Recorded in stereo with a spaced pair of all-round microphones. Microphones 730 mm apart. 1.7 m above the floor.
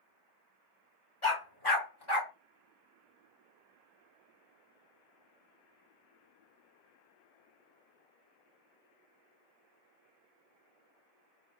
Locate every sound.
1.2 s a dog barking: 40° left (ahead or behind), 2 m